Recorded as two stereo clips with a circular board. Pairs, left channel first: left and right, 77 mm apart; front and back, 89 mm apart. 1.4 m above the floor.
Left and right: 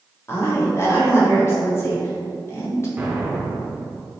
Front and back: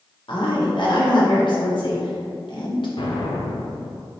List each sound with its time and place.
0.3 s a woman speaking: 35° left, 1.1 m
3.0 s an explosion: 15° right, 0.7 m